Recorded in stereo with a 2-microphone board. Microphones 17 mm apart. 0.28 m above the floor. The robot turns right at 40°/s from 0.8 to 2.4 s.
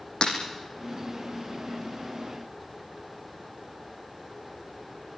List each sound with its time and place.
0.2 s breaking glass: 60° left (ahead or behind), 7 m